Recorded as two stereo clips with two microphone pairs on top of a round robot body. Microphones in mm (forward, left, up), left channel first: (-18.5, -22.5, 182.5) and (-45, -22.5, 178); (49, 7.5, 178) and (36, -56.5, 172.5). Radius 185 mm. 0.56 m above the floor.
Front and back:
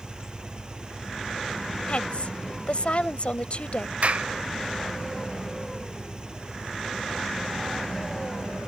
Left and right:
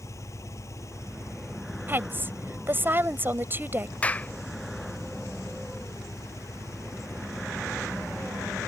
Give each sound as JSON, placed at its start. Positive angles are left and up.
{"t": 0.0, "sound": "an engine running", "azimuth_deg": 120}
{"t": 1.9, "sound": "a woman speaking", "azimuth_deg": -45}
{"t": 4.0, "sound": "a clap", "azimuth_deg": 150}